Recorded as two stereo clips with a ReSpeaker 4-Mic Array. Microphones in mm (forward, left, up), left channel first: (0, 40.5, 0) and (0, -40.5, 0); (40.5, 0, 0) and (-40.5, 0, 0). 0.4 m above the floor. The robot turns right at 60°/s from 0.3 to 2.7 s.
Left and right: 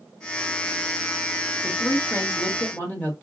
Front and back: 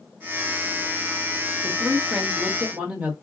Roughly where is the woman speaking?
Ahead left.